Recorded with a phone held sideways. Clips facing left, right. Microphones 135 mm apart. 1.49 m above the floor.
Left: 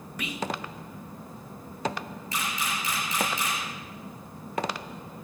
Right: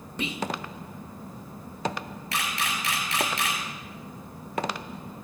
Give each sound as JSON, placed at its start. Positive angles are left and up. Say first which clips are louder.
{"t": 0.2, "sound": "whispering", "louder": "right 2 dB", "side_deg": -25, "distance_m": 1.0}
{"t": 2.3, "sound": "a camera shutter", "louder": "right 1 dB", "side_deg": -80, "distance_m": 4.5}